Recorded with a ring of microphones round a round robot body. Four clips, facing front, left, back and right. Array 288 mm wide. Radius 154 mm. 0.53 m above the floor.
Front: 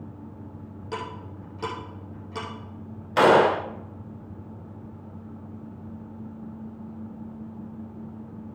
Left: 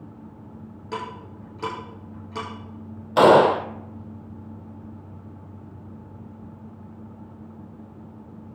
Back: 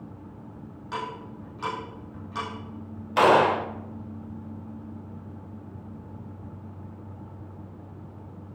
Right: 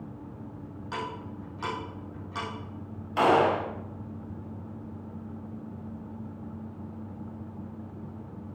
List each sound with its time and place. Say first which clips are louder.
0.9 s ticking: left 3 dB, back 1 dB; 40° left, 5.5 m
3.2 s a gunshot: left 8 dB, front 1 dB; 70° left, 0.6 m